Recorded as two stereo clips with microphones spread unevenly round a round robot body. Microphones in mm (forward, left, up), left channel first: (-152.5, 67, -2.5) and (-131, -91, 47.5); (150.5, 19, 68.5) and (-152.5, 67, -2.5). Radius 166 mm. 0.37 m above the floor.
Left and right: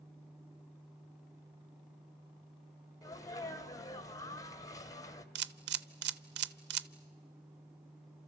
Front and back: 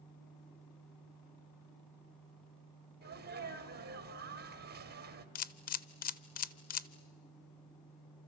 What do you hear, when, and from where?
3.0 s a sneeze: 140° left, 2 m
5.3 s a camera shutter: 80° right, 0.5 m